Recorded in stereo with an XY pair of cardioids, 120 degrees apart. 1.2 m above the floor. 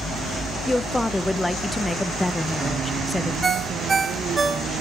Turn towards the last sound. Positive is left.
turn(degrees=-20)